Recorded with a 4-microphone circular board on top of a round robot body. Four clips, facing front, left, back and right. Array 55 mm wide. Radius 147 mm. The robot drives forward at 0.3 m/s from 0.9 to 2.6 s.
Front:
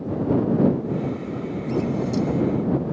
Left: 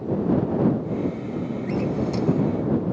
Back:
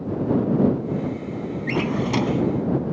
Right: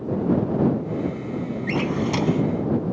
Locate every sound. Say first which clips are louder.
1.7 s a drawer: right 2 dB, back 1 dB; 145° right